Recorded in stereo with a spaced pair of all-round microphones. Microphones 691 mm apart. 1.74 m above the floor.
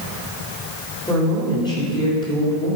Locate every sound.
1.1 s a woman speaking: 5° left (ahead or behind), 3.5 m